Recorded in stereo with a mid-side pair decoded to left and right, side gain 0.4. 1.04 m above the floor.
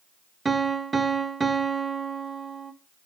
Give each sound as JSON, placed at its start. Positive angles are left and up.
{"t": 0.5, "sound": "a piano", "azimuth_deg": -30, "distance_m": 0.8}